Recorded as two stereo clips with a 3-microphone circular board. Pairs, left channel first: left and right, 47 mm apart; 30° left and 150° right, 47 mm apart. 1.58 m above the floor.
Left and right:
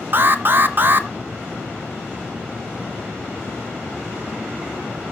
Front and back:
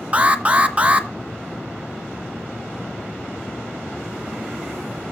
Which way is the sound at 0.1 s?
100° right.